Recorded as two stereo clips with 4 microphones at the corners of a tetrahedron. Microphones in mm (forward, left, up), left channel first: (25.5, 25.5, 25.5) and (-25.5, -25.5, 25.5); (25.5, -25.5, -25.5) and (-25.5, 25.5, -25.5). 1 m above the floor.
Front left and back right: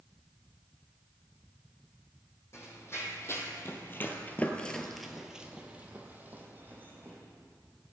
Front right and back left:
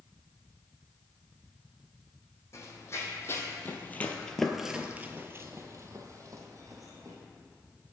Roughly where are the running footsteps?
Ahead.